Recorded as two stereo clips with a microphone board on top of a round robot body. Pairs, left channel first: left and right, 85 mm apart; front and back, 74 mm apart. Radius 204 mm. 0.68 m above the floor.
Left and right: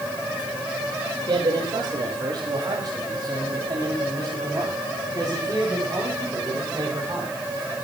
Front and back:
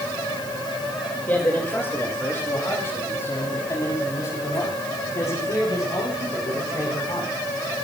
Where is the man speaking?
65° right, 4.5 m; by 7.3 s 35° right, 8.5 m.